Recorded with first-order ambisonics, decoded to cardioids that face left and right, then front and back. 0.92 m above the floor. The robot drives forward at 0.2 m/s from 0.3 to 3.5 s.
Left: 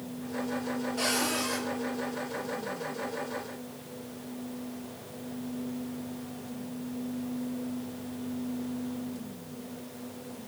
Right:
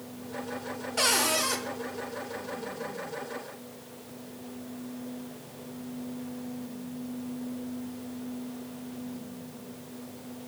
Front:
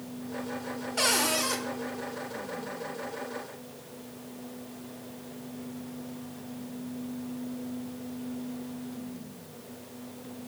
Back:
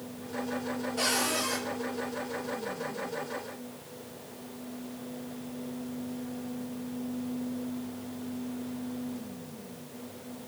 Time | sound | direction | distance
1.0 | a cupboard door | 50° right | 1.1 m